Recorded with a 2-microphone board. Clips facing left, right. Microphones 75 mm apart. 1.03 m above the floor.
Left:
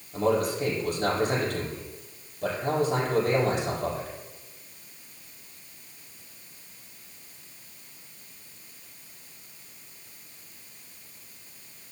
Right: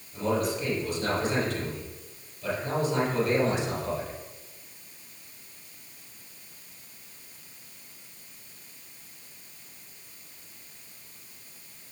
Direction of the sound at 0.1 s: 55° left (ahead or behind).